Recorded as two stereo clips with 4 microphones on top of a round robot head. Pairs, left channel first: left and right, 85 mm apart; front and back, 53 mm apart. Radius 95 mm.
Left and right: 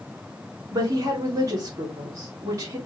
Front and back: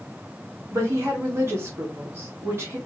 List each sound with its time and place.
0.7 s a woman speaking: 145° right, 2.5 m